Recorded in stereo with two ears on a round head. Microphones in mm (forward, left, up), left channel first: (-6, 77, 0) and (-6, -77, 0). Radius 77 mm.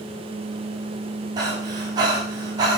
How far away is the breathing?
About 5 m.